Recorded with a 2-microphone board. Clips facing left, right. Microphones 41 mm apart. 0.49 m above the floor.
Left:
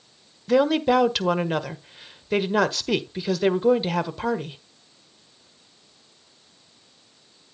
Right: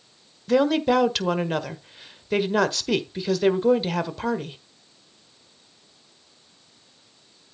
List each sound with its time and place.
0.5 s a woman speaking: 5° left (ahead or behind), 1.3 m